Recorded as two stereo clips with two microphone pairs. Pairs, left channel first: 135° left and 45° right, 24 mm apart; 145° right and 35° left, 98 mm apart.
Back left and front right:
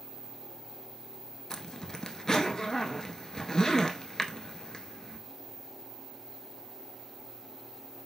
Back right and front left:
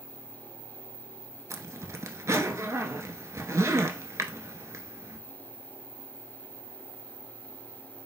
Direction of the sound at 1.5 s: 80° left.